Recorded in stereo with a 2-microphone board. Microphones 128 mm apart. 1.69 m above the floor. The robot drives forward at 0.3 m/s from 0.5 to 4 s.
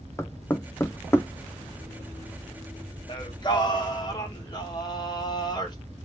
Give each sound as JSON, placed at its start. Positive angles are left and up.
{"t": 0.2, "sound": "knocking", "side_deg": 20, "distance_m": 0.5}
{"t": 3.1, "sound": "singing", "side_deg": 40, "distance_m": 1.1}